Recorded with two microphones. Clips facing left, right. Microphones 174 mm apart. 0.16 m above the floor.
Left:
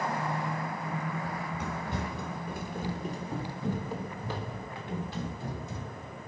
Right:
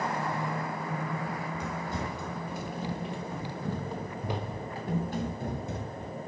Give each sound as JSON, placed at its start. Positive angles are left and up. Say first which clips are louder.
{"t": 1.2, "sound": "running footsteps", "louder": "right 1 dB", "side_deg": 70, "distance_m": 4.5}